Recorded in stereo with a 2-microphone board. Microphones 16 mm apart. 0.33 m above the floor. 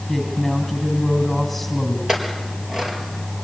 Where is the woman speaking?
Centre (ahead or behind), 2.5 m.